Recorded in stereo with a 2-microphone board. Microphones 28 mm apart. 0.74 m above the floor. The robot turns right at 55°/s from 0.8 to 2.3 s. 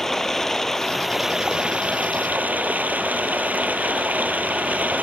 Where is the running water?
170° left; by 5.0 s 110° right.